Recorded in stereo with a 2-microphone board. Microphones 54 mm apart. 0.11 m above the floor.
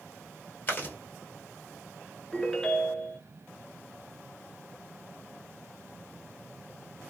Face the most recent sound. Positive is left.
turn(degrees=10)  # may be behind; listen again after turning